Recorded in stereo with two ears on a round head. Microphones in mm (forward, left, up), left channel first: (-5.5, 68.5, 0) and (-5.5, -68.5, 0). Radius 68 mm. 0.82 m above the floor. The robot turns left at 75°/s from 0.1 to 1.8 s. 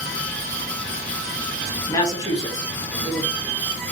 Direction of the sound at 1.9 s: 25° left (ahead or behind).